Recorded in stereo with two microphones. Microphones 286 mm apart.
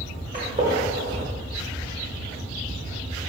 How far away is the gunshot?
About 1.1 m.